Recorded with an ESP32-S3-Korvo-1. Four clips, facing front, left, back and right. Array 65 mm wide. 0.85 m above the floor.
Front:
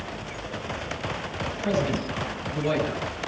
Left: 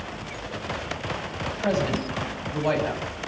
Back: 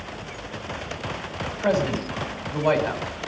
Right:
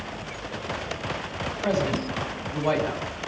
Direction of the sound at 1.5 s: 155° left.